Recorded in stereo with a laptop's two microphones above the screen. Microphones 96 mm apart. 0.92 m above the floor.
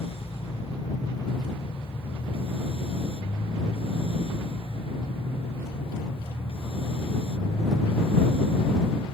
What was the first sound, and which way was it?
A machine running, 85° left.